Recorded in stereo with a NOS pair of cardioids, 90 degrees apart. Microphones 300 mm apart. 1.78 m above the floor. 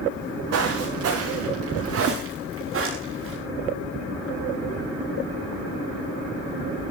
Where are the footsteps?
60° right, 10 m; by 3.4 s 45° right, 9.5 m.